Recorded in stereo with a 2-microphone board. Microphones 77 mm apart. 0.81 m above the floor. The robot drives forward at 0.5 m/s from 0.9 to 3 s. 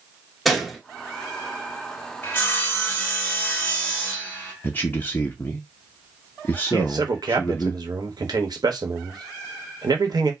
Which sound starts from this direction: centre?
A gunshot, at 0.5 s.